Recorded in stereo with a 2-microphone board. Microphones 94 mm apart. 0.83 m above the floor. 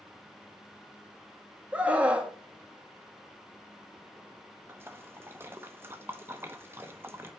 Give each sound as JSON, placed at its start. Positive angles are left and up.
{"t": 1.7, "sound": "a scream", "side_deg": -15, "distance_m": 1.6}
{"t": 4.7, "sound": "a splash", "side_deg": -25, "distance_m": 0.9}